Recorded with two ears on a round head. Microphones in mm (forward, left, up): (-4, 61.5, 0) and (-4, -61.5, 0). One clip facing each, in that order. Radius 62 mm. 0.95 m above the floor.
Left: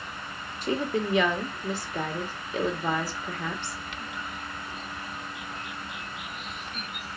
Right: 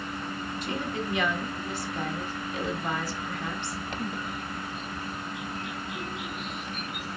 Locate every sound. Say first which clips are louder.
0.6 s a woman speaking: left 7 dB; 70° left (ahead or behind), 2 m